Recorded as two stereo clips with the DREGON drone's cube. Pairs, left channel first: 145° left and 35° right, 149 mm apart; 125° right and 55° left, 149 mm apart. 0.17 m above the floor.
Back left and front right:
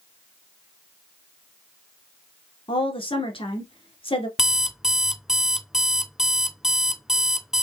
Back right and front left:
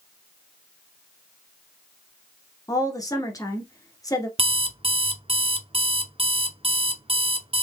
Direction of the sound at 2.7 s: Straight behind.